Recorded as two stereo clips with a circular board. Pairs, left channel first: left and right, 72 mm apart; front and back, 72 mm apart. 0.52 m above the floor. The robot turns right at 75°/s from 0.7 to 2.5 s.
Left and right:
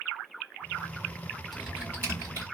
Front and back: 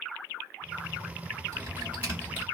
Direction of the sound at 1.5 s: Straight behind.